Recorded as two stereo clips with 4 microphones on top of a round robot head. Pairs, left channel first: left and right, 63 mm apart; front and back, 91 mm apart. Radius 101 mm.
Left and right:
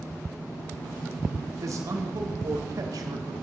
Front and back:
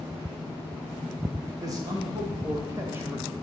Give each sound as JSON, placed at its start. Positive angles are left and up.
{"t": 1.6, "sound": "a man speaking", "azimuth_deg": -125, "distance_m": 3.0}